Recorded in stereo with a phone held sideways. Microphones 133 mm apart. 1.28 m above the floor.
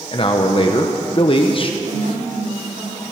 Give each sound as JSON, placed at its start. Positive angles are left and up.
{"t": 0.1, "sound": "a man speaking", "side_deg": 40, "distance_m": 1.0}
{"t": 1.8, "sound": "a woman speaking", "side_deg": -80, "distance_m": 6.5}